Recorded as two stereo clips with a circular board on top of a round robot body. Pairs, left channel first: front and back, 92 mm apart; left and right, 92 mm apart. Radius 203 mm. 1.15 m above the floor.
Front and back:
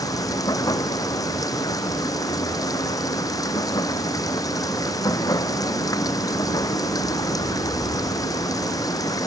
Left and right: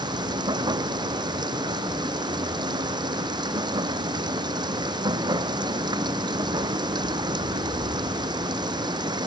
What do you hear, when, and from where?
0.0 s running water: 50° right